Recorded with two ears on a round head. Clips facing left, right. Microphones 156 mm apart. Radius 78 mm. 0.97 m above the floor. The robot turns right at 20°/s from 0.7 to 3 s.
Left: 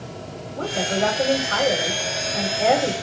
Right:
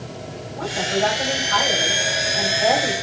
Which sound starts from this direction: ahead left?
A woman speaking, at 0.6 s.